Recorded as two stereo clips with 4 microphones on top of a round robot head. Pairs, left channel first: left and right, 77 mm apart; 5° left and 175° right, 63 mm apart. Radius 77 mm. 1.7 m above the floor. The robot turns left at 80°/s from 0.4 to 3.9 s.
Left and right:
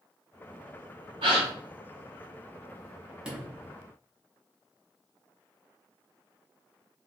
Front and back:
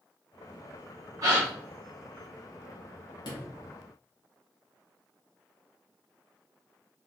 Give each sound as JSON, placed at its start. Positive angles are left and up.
{"t": 1.2, "sound": "a gasp", "azimuth_deg": -120, "distance_m": 1.0}
{"t": 3.2, "sound": "a sliding door", "azimuth_deg": -10, "distance_m": 1.1}